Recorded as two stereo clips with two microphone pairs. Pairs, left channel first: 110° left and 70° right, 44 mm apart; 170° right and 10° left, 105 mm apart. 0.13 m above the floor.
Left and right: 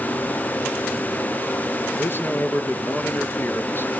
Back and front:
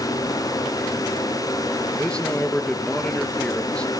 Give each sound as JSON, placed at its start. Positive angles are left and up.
{"t": 1.9, "sound": "a man speaking", "azimuth_deg": 110, "distance_m": 1.9}